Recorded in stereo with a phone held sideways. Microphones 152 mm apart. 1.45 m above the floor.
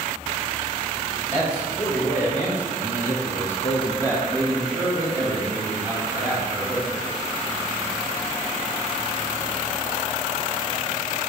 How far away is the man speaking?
About 1.7 m.